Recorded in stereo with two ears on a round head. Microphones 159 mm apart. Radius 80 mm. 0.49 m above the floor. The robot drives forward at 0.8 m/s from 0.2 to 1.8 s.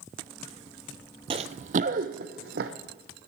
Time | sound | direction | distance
1.3 | running footsteps | 30° right (ahead or behind) | 0.5 m